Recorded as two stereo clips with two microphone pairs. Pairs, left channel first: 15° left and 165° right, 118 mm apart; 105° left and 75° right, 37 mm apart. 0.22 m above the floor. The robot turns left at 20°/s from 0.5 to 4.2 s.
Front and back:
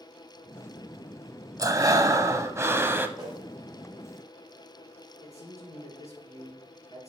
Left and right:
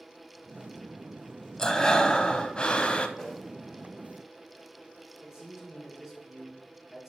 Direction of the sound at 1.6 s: 170° left.